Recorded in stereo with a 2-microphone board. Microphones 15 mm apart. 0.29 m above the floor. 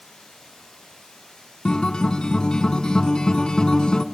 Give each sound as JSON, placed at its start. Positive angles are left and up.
{"t": 0.0, "sound": "running water", "side_deg": 80, "distance_m": 9.0}
{"t": 1.6, "sound": "a guitar", "side_deg": 80, "distance_m": 0.7}